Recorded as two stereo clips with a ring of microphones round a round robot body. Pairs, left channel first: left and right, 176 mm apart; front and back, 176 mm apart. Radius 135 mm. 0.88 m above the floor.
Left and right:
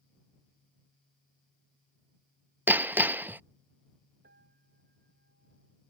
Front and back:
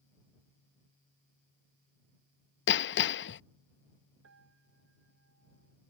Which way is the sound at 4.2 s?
145° right.